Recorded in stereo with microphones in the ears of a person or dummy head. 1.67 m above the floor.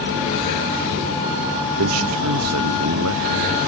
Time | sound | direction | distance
1.8 | a man speaking | 80° right | ?